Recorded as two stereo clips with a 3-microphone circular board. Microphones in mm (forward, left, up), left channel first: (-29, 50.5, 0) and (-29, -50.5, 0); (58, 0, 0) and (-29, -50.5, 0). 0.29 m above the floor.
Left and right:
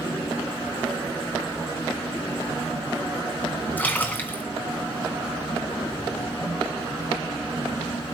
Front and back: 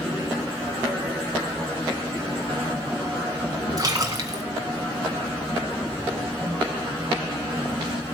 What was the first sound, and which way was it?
A splash, 160° left.